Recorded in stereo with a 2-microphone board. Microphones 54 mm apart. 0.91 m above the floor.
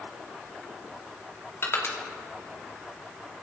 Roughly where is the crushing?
Left.